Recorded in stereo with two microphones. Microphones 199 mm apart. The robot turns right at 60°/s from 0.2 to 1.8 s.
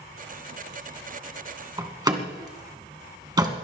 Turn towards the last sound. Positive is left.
turn(degrees=-20)  # may be behind; listen again after turning